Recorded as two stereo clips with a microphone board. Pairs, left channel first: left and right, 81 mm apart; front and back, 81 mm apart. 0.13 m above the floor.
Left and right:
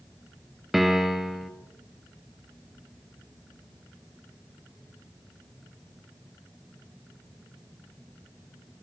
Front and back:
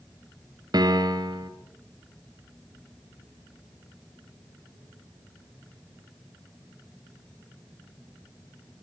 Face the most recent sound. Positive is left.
turn(degrees=-175)